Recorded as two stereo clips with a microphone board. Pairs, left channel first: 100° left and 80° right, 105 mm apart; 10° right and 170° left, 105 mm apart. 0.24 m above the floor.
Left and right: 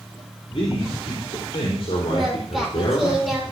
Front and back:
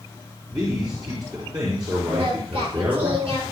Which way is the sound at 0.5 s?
120° left.